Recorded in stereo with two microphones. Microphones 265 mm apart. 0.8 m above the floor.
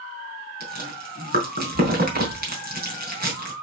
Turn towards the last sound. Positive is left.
turn(degrees=-35)  # may be behind; listen again after turning